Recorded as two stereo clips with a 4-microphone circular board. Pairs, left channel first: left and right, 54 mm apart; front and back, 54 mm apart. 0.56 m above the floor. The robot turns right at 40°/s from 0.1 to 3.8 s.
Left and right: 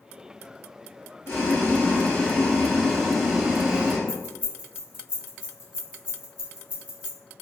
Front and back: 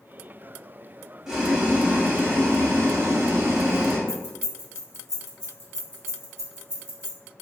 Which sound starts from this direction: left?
Boiling, at 1.3 s.